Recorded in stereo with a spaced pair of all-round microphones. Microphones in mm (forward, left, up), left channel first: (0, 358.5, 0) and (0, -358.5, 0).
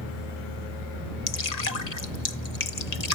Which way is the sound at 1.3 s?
65° left (ahead or behind).